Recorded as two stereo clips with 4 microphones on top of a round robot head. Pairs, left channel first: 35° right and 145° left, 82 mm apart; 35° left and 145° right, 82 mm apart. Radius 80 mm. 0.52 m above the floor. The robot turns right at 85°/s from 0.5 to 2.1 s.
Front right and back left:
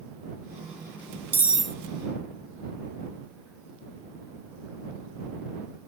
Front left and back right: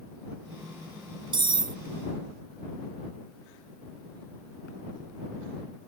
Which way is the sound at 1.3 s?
150° right.